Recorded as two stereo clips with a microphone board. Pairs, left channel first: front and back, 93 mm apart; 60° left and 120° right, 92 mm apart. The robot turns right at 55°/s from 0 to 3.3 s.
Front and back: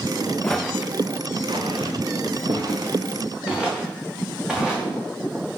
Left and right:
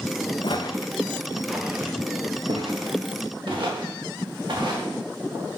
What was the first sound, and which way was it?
Footsteps, 80° left.